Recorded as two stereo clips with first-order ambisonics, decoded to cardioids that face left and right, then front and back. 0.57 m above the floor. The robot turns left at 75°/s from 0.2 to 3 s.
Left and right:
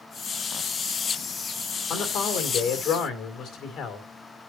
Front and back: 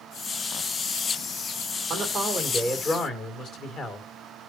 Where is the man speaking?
125° left, 2 m; by 4.1 s 45° left, 2 m.